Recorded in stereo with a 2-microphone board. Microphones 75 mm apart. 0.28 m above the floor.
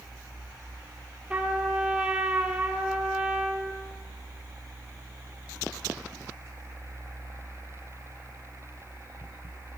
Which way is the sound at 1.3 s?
15° right (ahead or behind).